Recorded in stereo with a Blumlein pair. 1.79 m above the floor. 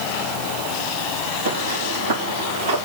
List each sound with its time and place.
1.4 s footsteps: 55° right, 6 m; by 2.8 s 60° right, 7 m